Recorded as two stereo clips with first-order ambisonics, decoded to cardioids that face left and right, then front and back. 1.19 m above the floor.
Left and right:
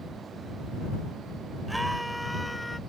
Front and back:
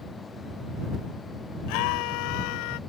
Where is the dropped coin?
No dropped coin in this recording.